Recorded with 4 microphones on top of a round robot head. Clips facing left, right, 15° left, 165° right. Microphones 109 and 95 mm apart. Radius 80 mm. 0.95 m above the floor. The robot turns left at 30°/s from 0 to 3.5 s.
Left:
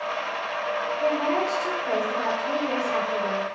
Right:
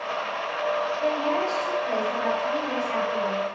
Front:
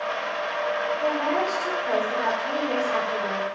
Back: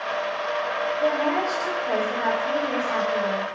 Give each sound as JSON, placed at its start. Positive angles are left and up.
{"t": 1.0, "sound": "a woman speaking", "azimuth_deg": 120, "distance_m": 1.5}